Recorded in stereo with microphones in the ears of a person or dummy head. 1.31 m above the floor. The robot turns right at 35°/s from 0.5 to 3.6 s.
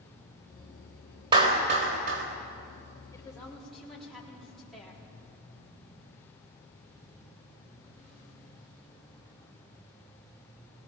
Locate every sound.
1.3 s a clap: 155° right, 3.5 m; by 2.2 s 120° right, 3.5 m
3.1 s a woman speaking: 15° left (ahead or behind), 4 m; by 5.0 s centre (ahead or behind), 4 m